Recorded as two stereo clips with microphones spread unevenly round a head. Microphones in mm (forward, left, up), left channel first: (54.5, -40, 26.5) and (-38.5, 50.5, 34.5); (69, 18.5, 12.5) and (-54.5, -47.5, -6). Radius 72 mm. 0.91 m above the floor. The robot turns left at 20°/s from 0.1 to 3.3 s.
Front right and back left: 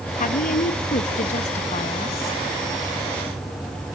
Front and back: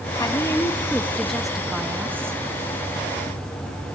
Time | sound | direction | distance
0.2 | a woman speaking | 40° right | 1.3 m